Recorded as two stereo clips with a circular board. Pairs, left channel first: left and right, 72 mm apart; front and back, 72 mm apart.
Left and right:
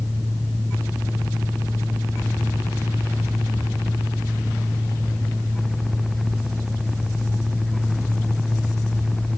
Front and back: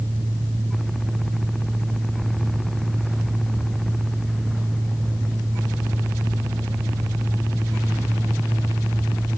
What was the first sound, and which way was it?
Only background noise.